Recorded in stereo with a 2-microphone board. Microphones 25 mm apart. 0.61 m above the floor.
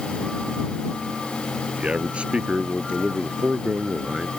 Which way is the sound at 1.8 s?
45° right (ahead or behind).